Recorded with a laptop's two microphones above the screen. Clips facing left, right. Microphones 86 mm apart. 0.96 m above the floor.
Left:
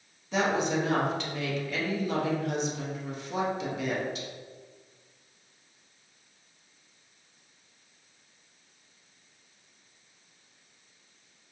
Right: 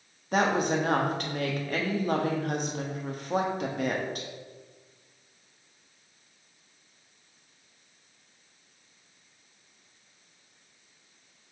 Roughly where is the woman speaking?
Right.